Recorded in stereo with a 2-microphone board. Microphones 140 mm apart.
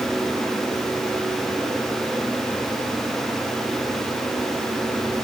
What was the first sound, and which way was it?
Only background noise.